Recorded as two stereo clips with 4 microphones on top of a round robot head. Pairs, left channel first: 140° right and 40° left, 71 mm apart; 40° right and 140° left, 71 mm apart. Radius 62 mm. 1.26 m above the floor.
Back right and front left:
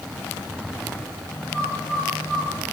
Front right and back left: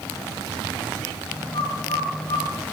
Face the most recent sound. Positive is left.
turn(degrees=-60)